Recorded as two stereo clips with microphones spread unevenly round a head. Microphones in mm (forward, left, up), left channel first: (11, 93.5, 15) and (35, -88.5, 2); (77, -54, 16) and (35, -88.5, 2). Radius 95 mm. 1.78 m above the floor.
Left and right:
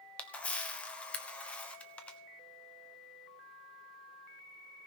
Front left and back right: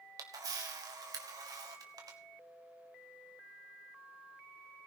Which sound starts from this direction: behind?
A camera shutter, at 0.2 s.